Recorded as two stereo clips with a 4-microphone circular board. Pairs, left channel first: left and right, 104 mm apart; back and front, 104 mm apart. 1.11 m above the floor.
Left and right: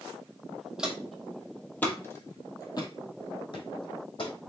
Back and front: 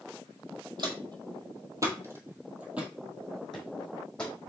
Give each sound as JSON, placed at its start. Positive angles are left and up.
{"t": 0.8, "sound": "footsteps", "azimuth_deg": -10, "distance_m": 1.6}